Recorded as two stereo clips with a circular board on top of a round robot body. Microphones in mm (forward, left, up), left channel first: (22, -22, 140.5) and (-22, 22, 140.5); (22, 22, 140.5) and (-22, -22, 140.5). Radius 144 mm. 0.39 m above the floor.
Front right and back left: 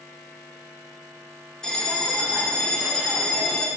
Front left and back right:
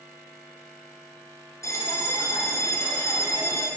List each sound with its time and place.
1.6 s a bell: 30° left, 1.5 m